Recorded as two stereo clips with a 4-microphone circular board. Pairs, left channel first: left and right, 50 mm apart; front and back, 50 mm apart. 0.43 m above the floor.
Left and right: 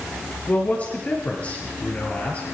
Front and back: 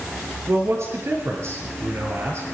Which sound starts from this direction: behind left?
A man speaking, at 0.5 s.